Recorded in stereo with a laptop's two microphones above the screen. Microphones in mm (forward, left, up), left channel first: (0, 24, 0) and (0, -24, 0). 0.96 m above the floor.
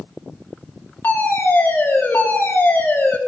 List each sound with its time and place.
1.0 s a fire alarm: 40° left (ahead or behind), 3.5 m